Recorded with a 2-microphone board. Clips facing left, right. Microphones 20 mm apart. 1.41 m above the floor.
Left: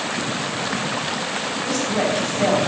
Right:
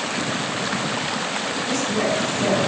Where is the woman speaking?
55° left (ahead or behind), 8.5 m.